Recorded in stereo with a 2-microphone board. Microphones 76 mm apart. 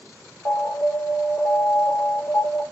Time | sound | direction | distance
0.5 | an alarm | 45° left (ahead or behind) | 1.7 m